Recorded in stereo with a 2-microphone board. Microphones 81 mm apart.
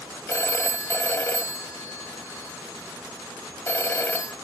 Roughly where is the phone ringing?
Left.